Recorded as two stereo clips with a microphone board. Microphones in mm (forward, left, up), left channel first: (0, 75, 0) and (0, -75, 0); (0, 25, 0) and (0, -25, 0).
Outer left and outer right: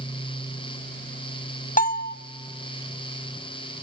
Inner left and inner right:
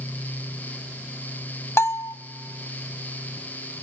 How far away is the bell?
About 0.8 m.